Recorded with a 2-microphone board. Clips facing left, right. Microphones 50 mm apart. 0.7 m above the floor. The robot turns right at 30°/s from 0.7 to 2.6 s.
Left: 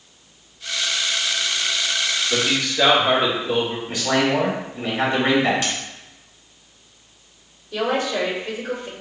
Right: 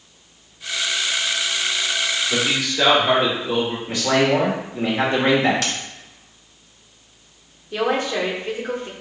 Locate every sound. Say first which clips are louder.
2.3 s a man speaking: even; centre (ahead or behind), 2 m; by 3.8 s 10° right (ahead or behind), 2 m
3.9 s a man speaking: right 3 dB; 60° right (ahead or behind), 1.9 m
5.6 s a dropped coin: even; 80° right, 0.8 m
7.7 s a woman speaking: right 1 dB; 35° right (ahead or behind), 1.3 m